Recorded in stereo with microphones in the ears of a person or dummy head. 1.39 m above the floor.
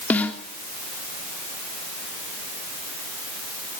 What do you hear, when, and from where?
0.1 s a snare drum: 10° left (ahead or behind), 3 m